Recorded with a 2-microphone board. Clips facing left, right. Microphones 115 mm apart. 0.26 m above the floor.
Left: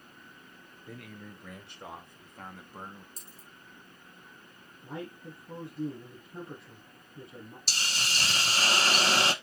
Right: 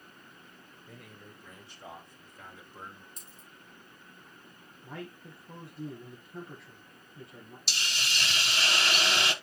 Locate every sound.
0.9 s a man speaking: 75° left (ahead or behind), 4.5 m; by 3.1 s 40° left (ahead or behind), 1.6 m
3.2 s a dropped coin: 35° left (ahead or behind), 6 m
4.8 s a man speaking: 20° left (ahead or behind), 4 m
7.7 s a hiss: 40° left (ahead or behind), 1.2 m